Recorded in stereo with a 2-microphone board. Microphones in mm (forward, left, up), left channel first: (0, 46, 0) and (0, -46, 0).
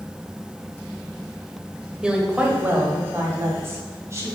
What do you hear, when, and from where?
2.0 s a woman speaking: 10° right (ahead or behind), 1.6 m; by 4.3 s 30° right (ahead or behind), 3 m